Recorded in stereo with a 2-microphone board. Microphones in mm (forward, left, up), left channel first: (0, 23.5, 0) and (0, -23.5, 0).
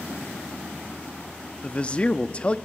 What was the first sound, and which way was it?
A man speaking, 20° left (ahead or behind).